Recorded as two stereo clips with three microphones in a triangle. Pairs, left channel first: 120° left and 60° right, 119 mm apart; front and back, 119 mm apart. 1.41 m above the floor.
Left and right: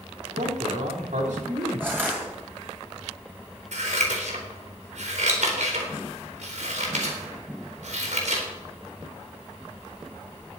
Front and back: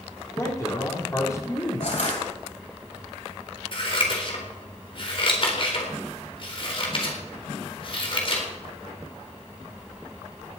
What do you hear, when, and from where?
0.3 s a man speaking: 65° right, 4 m
1.8 s crushing: 15° left, 9.5 m
3.7 s scissors: 45° right, 4 m